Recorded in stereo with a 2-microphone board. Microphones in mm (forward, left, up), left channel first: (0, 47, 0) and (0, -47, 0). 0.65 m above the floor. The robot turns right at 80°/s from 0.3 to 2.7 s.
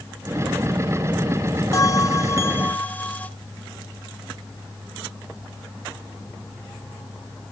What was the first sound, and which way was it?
A bell, 75° left.